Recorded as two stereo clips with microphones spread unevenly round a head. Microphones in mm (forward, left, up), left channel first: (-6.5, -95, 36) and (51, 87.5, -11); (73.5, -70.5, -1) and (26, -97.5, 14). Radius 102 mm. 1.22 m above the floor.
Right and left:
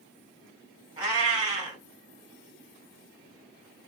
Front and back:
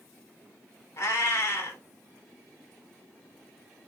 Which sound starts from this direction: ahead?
A cat meowing, at 1.0 s.